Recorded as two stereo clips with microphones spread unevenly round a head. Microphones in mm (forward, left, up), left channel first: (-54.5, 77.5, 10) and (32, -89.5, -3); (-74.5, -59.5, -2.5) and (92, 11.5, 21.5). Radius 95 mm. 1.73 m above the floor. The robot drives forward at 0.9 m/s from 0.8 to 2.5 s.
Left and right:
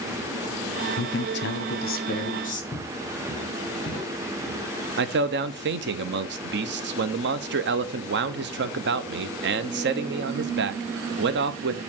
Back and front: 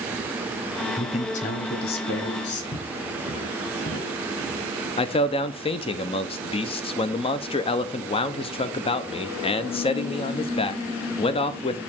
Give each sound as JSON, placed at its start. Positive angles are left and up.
{"t": 1.0, "sound": "a man speaking", "azimuth_deg": 135, "distance_m": 0.8}
{"t": 2.7, "sound": "footsteps", "azimuth_deg": 175, "distance_m": 5.5}
{"t": 5.0, "sound": "a man speaking", "azimuth_deg": -95, "distance_m": 0.9}